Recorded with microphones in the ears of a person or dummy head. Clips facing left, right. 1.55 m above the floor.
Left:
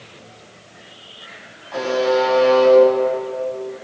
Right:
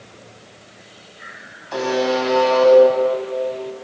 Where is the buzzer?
65° right (ahead or behind), 9 m.